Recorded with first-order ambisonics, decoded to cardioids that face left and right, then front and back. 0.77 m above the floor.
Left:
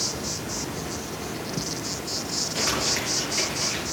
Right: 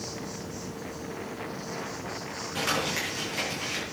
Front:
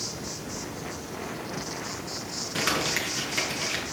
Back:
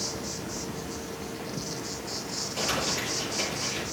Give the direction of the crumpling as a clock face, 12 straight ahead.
12 o'clock.